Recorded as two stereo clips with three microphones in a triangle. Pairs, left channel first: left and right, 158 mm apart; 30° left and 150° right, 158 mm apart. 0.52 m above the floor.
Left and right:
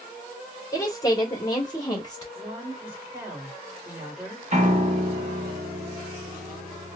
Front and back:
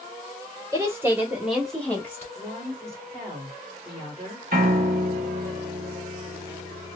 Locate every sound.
0.7 s a woman speaking: 150° left, 1.1 m; by 2.2 s 80° left, 0.9 m
2.4 s a woman speaking: 160° right, 1.6 m
4.5 s a piano: 130° right, 0.7 m